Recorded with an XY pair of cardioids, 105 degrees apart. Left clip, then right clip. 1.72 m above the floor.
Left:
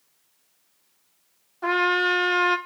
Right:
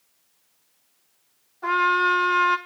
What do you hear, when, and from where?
1.6 s a trumpet: 50° left, 2.5 m